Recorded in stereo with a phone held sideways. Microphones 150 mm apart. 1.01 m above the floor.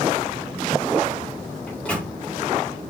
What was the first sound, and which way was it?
A microwave, 10° left (ahead or behind).